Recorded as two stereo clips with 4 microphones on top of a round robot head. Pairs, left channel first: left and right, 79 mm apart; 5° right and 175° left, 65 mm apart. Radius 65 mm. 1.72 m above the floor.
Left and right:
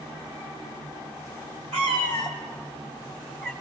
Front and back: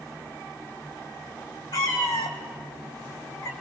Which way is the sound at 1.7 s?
55° right.